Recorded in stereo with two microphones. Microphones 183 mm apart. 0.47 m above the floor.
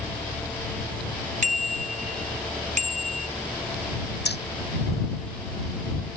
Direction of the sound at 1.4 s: 50° right (ahead or behind).